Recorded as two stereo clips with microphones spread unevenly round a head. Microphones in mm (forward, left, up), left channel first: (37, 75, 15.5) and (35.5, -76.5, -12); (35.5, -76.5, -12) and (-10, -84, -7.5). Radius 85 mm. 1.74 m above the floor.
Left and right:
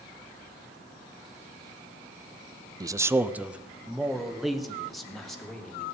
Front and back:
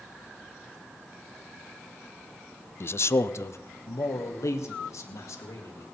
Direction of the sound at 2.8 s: 25° right.